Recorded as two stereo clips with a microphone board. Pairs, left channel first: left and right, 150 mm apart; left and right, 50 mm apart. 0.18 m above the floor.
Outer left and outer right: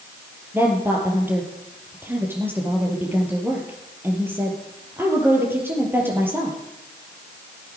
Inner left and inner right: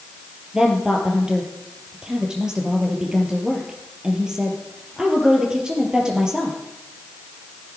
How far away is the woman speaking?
About 3.5 m.